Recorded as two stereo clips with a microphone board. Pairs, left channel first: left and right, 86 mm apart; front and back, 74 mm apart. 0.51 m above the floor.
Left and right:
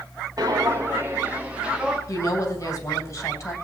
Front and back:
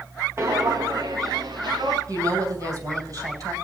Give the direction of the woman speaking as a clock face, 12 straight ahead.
7 o'clock.